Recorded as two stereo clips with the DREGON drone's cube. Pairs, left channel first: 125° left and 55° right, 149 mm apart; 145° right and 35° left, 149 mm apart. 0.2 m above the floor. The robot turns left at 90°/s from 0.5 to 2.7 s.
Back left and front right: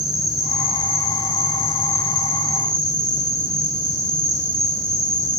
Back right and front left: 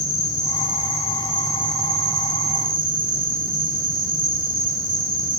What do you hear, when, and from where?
0.0 s an insect: 145° right, 1.1 m; by 5.4 s 20° left, 1.1 m